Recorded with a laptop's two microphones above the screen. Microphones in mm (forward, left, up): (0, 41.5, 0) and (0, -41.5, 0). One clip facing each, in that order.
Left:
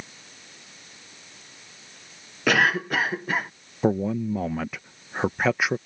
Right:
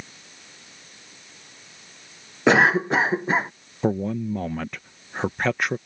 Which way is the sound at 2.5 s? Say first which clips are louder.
Right 4 dB; 25° right (ahead or behind).